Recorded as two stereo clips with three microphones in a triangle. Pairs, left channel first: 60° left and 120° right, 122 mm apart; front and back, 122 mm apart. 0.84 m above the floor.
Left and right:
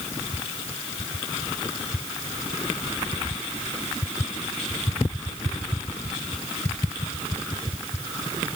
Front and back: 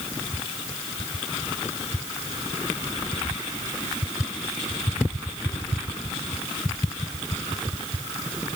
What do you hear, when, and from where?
Only background noise.